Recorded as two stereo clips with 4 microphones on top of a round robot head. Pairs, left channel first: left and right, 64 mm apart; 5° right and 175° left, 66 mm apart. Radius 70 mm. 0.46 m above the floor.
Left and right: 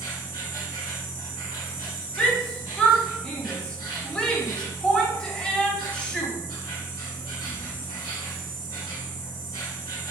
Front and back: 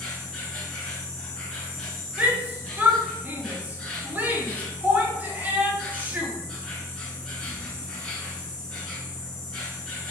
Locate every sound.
0.0 s an insect: 75° left, 1.0 m
2.2 s a shout: 150° left, 0.7 m